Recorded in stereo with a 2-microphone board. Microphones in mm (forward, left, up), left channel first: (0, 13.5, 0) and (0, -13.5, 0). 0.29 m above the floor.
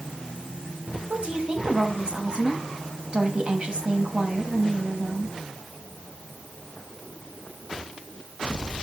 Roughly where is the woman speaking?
Right.